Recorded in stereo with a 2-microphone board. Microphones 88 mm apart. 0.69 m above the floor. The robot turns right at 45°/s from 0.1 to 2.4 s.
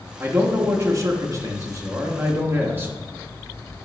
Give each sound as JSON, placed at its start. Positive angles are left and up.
{"t": 0.2, "sound": "a man speaking", "azimuth_deg": -145, "distance_m": 0.6}